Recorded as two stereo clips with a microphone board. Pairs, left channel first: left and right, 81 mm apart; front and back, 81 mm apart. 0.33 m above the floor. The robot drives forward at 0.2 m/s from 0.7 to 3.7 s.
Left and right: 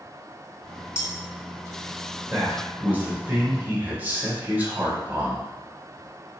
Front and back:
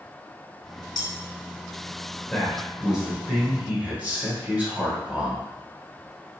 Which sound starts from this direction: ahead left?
Cutlery clinking, at 0.9 s.